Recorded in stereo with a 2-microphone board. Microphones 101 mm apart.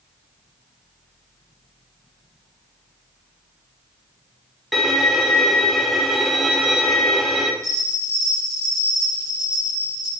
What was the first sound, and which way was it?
A violin, centre (ahead or behind).